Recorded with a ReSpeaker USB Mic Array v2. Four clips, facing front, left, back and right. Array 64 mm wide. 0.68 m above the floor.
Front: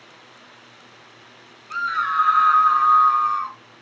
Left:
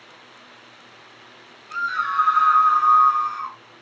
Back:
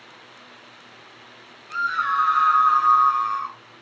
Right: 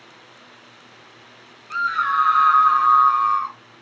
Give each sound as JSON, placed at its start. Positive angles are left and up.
{"t": 1.7, "sound": "a scream", "azimuth_deg": -70, "distance_m": 1.2}